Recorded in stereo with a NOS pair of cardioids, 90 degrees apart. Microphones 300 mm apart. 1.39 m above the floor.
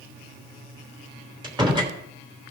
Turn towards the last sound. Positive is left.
turn(degrees=-15)